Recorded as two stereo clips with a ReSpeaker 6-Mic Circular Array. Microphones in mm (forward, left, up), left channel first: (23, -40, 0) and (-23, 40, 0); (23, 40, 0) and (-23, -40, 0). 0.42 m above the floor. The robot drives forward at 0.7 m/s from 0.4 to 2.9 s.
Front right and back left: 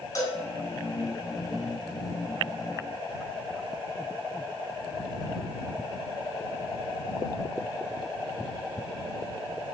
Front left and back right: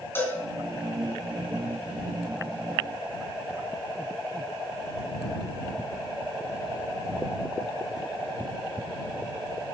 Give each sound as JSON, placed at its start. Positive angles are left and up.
{"t": 0.1, "sound": "a cowbell", "azimuth_deg": -5, "distance_m": 3.0}